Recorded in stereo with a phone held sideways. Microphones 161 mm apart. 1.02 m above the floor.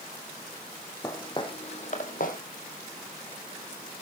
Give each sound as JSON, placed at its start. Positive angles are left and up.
{"t": 1.0, "sound": "footsteps", "side_deg": 20, "distance_m": 2.5}